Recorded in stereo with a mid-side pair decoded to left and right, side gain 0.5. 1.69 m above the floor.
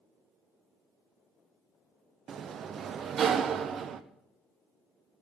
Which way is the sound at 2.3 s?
50° right.